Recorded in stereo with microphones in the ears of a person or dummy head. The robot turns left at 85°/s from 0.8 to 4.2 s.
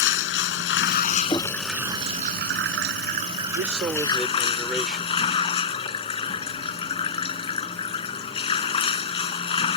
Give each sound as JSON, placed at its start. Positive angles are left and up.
{"t": 0.0, "sound": "running water", "azimuth_deg": 70}
{"t": 1.3, "sound": "knocking", "side_deg": 20}
{"t": 3.5, "sound": "a man speaking", "azimuth_deg": -125}